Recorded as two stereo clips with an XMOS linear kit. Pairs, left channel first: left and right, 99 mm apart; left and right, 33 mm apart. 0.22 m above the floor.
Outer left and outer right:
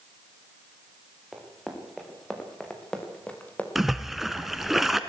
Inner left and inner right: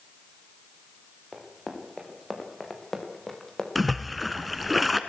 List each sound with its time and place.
1.3 s running footsteps: centre (ahead or behind), 4.5 m; by 3.6 s 15° left (ahead or behind), 3 m
3.8 s a splash: centre (ahead or behind), 1.1 m